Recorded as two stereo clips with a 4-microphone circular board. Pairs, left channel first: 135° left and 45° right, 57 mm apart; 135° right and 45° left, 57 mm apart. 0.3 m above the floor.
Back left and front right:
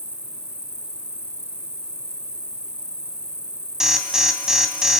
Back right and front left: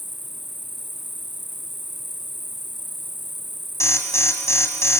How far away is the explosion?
No explosion in this recording.